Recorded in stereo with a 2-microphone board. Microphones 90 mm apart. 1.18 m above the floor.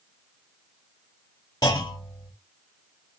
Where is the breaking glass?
I don't hear breaking glass.